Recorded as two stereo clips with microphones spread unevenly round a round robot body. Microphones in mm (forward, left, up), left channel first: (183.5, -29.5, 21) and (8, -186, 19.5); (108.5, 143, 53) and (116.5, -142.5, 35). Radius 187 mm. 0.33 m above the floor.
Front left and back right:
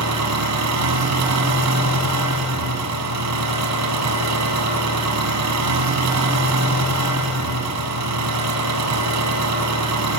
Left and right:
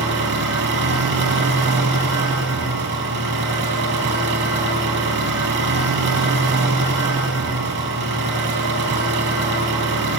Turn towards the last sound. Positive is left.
turn(degrees=-150)